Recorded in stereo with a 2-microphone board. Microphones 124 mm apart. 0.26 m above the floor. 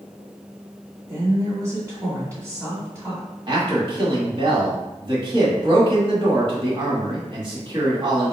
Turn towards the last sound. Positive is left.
turn(degrees=-40)  # may be behind; listen again after turning